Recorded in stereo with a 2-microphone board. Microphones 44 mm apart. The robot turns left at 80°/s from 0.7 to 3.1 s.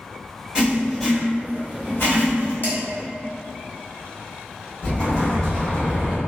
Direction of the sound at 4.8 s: 15° left (ahead or behind).